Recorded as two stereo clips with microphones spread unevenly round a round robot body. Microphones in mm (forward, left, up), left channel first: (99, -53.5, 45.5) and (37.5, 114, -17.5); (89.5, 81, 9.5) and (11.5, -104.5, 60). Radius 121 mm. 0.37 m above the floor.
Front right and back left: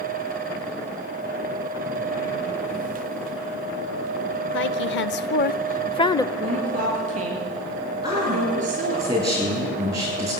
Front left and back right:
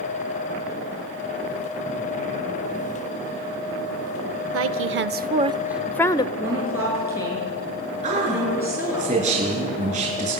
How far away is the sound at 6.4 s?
About 7 m.